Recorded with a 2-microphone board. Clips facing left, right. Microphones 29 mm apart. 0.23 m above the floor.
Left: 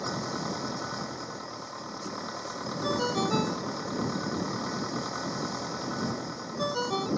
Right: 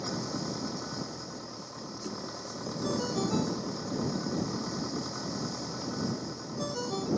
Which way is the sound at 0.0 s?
30° left (ahead or behind).